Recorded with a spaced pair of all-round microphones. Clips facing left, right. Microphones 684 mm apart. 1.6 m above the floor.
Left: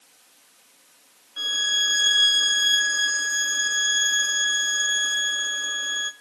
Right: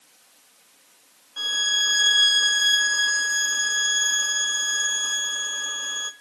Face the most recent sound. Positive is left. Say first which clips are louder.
# even
turn(degrees=-30)  # may be behind; listen again after turning